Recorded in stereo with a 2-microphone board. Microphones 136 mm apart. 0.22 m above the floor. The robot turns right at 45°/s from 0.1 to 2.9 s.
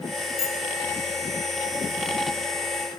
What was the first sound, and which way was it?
A bicycle bell, 45° left (ahead or behind).